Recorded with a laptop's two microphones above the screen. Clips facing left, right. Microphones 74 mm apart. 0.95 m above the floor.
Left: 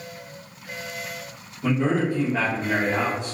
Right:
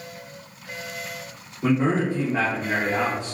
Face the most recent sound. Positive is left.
turn(degrees=25)  # may be behind; listen again after turning